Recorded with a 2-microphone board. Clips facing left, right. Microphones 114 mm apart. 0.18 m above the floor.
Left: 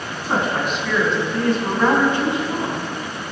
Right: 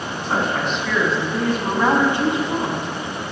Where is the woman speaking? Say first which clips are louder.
Left 1 dB; 10° left (ahead or behind), 1.6 m; by 2.9 s 30° right (ahead or behind), 1.5 m.